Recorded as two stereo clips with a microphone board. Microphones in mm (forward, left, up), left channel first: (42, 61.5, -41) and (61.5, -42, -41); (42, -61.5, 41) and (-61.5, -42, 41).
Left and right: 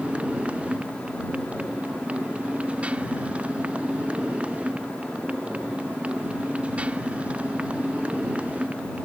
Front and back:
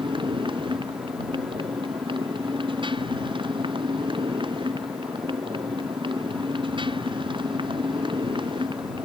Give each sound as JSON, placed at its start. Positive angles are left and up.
{"t": 0.0, "sound": "a motorcycle", "azimuth_deg": -155}